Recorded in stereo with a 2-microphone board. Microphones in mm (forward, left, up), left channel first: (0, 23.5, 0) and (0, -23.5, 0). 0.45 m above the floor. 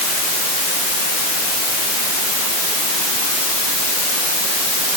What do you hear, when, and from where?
Only background noise.